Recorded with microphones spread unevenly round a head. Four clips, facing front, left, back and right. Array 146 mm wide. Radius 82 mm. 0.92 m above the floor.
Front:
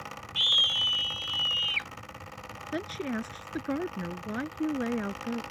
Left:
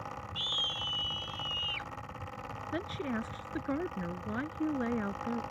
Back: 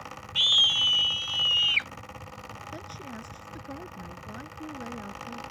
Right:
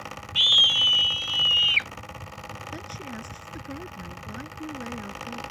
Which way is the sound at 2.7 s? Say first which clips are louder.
Left 6 dB, front 12 dB; 15° left.